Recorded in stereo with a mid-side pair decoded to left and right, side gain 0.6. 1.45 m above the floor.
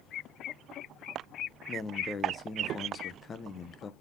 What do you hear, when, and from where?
1.7 s a man speaking: 30° left, 1.0 m